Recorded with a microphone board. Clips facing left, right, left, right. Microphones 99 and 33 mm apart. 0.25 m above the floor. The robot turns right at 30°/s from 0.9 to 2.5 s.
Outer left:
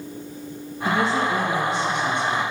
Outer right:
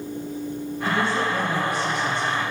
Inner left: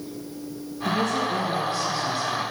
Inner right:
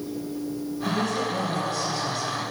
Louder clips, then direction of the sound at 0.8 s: Outer left 2 dB, inner left 3 dB; 125° left.